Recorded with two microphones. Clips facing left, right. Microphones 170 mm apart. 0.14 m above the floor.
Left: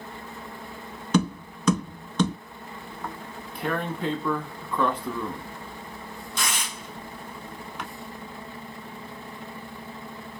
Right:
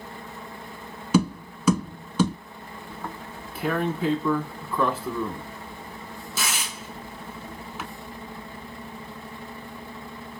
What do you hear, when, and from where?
1.1 s tapping: 5° right (ahead or behind), 0.8 m
2.9 s tearing paper: 5° right (ahead or behind), 0.5 m